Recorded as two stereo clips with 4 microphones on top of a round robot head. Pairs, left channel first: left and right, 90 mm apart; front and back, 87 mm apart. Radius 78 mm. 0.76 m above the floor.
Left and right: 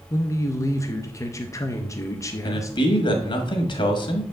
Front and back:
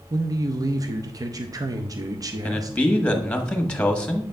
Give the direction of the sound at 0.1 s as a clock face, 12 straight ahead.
7 o'clock.